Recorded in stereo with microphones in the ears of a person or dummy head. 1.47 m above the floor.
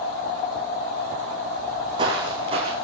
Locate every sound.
1.6 s footsteps: 30° right (ahead or behind), 6 m; by 2.7 s 35° right (ahead or behind), 7.5 m